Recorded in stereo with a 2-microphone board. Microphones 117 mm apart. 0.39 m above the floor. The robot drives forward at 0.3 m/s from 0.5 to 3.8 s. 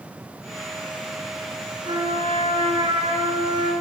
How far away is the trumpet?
About 6.5 m.